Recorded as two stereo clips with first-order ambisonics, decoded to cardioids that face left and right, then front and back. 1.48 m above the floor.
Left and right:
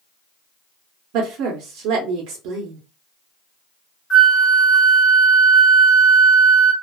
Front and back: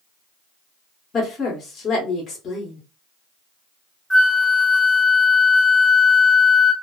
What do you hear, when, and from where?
1.1 s a woman speaking: 65° right, 0.9 m
4.1 s a flute: 85° left, 1.4 m